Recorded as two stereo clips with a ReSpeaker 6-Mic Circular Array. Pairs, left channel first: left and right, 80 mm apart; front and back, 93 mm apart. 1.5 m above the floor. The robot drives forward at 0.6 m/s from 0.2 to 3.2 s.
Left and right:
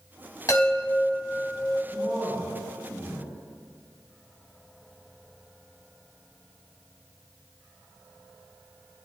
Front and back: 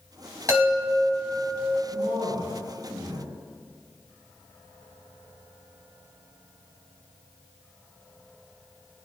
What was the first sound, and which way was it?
A chime, 130° left.